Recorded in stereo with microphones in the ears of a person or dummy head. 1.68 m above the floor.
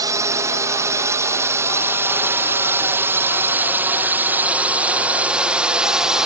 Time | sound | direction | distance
0.0 | a drone | 20° right (ahead or behind) | ?